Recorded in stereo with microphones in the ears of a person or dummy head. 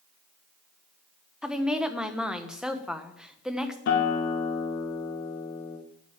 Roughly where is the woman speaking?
Centre.